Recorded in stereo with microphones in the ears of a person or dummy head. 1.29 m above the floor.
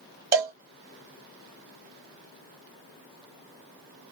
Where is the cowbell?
25° right (ahead or behind), 0.7 m.